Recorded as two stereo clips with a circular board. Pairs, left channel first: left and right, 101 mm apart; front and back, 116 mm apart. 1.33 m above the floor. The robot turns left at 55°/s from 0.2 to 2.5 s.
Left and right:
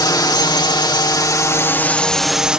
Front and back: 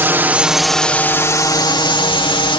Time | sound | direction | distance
0.0 | a drone | 115° left | ?